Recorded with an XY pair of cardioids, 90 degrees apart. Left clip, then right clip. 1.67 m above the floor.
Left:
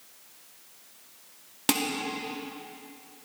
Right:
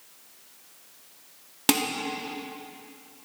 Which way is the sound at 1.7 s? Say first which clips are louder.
Right 3 dB; 25° right.